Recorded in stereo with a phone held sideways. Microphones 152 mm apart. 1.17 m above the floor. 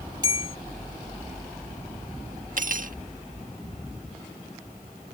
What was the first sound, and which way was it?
A bell, 25° right (ahead or behind).